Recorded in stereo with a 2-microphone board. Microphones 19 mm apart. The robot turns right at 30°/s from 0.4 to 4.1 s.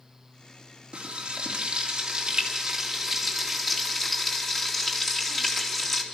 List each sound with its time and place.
0.9 s frying: 75° right, 4 m; by 6.0 s 20° left, 4 m